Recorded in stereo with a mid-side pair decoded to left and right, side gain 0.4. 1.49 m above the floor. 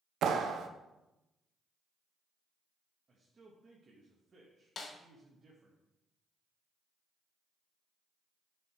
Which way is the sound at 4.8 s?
50° left.